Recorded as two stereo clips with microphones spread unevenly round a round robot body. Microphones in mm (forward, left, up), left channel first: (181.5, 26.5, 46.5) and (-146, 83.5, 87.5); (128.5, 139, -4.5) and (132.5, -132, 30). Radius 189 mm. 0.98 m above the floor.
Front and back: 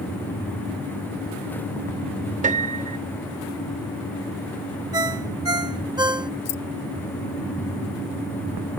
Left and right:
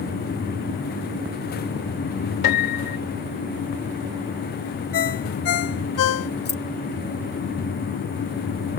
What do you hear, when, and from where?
2.4 s a piano: 105° left
4.9 s a ringtone: 95° left
6.5 s keys jangling: 35° left